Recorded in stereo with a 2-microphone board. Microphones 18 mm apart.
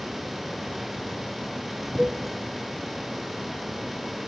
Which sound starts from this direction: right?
A cowbell, at 2.0 s.